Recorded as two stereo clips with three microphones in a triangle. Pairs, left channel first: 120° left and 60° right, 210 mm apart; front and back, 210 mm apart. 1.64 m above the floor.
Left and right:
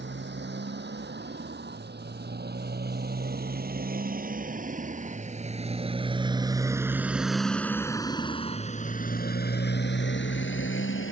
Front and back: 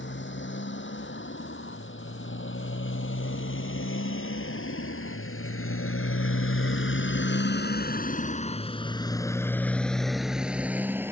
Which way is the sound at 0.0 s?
25° right.